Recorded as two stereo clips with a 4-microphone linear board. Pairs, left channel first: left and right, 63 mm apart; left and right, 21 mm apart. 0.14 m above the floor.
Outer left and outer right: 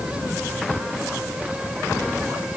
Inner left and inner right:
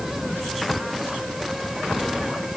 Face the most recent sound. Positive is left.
No sound to turn to.